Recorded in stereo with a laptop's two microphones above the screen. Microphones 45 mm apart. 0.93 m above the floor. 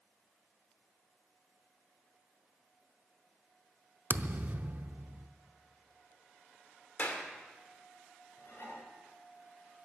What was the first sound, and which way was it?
A thud, 45° right (ahead or behind).